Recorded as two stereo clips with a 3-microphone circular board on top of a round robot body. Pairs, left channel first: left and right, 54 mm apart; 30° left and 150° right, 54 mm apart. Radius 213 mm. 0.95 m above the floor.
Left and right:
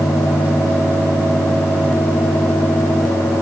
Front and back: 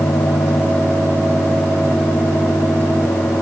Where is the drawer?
No drawer in this recording.